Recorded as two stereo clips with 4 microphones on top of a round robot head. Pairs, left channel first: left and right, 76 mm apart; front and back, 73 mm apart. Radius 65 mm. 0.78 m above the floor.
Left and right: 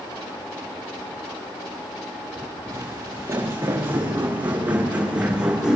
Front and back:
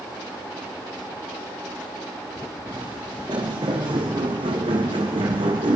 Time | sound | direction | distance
2.7 | footsteps | 140° right | 5 m